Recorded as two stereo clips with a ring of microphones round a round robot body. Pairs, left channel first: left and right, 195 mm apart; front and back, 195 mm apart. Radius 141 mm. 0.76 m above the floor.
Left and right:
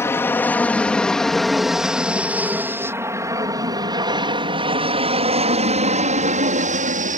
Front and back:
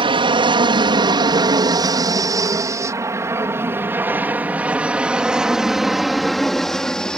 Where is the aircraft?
155° left; by 7.2 s 85° right.